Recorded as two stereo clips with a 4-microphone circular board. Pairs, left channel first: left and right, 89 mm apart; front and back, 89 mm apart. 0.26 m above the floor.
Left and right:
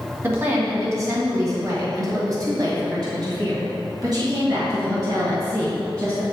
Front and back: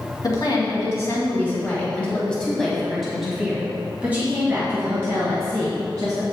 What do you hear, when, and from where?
0.2 s a woman speaking: 35° right, 2.5 m; by 6.2 s 135° right, 3 m